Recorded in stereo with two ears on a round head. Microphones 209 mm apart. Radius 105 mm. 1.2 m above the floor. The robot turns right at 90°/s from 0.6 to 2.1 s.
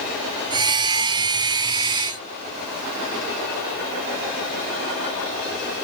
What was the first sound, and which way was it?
Only background noise.